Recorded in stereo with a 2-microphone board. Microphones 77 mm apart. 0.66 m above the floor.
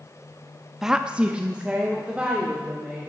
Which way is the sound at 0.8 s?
5° right (ahead or behind).